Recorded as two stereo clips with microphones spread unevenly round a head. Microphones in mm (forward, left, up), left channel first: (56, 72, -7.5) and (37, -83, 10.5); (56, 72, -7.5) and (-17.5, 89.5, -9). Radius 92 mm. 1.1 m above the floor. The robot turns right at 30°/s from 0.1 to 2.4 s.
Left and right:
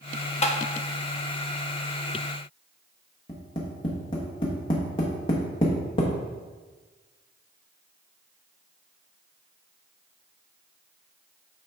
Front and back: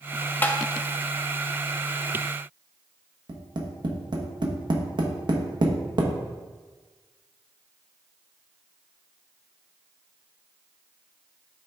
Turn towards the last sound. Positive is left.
turn(degrees=150)